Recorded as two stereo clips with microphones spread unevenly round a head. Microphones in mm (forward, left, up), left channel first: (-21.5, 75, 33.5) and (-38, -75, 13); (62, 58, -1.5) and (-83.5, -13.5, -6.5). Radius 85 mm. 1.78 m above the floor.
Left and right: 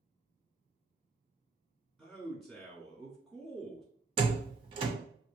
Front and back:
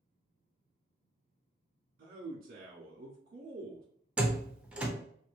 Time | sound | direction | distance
2.0 | a man speaking | 175° left | 1.0 m
4.2 | a door slam | 75° right | 0.6 m